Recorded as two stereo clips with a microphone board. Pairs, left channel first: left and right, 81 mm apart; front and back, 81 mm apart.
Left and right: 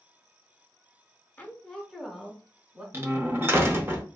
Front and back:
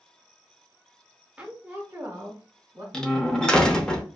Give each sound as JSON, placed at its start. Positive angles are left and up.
{"t": 1.4, "sound": "a woman speaking", "azimuth_deg": 130, "distance_m": 0.8}
{"t": 2.9, "sound": "a door slam", "azimuth_deg": -75, "distance_m": 0.6}